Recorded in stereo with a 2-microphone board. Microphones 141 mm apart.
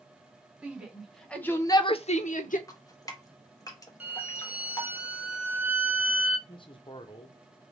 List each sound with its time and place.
0.6 s a shout: 10° right (ahead or behind), 1.2 m; by 2.6 s 70° left (ahead or behind), 0.7 m
2.7 s dripping: 25° left (ahead or behind), 0.7 m
4.0 s a violin: 10° right (ahead or behind), 0.6 m
6.5 s a man speaking: 35° left (ahead or behind), 0.7 m